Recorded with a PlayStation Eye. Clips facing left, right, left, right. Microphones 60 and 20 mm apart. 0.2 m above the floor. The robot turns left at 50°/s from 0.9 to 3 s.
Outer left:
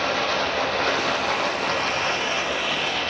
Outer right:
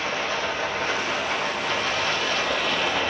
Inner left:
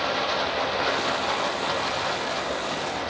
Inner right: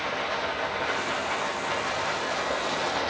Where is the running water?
95° left, 5.5 m; by 3.1 s 10° right, 5.5 m.